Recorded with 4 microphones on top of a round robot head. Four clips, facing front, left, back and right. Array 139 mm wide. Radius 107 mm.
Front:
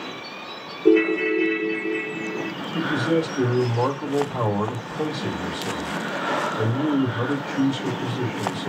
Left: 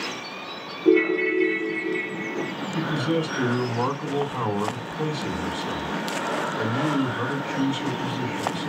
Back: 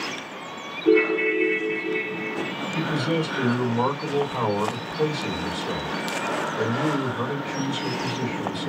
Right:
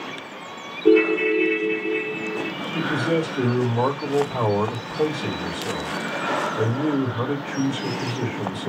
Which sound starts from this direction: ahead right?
A ringtone, at 0.8 s.